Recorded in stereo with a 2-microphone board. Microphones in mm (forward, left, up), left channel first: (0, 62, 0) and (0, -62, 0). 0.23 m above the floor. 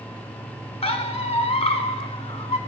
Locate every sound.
0.8 s a squeak: 55° left (ahead or behind), 0.6 m